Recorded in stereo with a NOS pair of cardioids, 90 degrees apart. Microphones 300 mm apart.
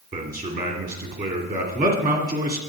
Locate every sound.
0.1 s a man speaking: 30° right, 2.5 m